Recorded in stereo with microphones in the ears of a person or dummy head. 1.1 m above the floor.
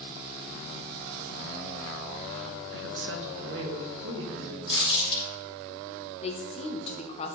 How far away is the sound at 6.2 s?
About 0.9 m.